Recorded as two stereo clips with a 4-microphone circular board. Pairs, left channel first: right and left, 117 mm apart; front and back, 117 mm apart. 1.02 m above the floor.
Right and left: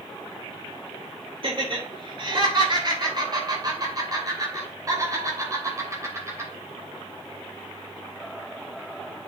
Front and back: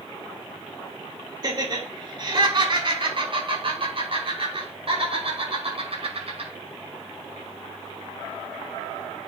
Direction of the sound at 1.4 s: 130° left.